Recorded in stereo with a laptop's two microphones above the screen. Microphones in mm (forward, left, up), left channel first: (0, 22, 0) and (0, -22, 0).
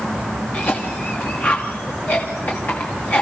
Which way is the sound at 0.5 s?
45° left (ahead or behind).